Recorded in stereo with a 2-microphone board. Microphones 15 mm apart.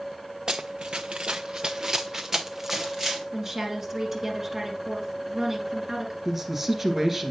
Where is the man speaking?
20° right (ahead or behind), 1.8 m.